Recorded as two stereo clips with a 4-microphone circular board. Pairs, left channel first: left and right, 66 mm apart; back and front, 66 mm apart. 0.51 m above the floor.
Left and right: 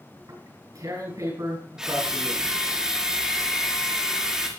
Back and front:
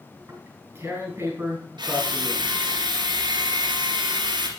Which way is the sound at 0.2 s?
55° right.